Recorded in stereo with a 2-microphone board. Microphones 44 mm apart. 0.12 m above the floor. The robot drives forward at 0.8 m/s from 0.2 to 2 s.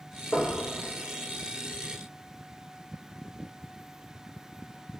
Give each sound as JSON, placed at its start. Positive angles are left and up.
{"t": 0.3, "sound": "knocking", "side_deg": 50, "distance_m": 2.5}